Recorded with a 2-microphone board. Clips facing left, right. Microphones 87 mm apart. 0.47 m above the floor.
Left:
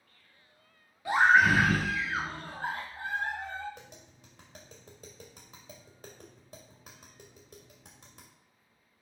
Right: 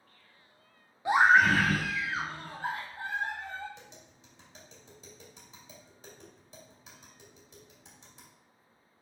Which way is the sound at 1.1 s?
25° right (ahead or behind).